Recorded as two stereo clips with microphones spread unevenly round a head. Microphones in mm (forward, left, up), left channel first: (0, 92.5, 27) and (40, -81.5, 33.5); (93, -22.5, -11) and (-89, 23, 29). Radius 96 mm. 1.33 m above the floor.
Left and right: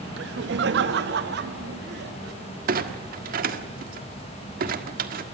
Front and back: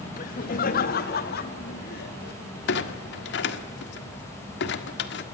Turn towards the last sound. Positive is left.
turn(degrees=-45)